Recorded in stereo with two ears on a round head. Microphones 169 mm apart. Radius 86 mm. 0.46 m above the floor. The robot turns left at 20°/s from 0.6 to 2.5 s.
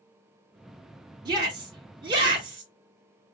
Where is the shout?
25° right (ahead or behind), 1.1 m.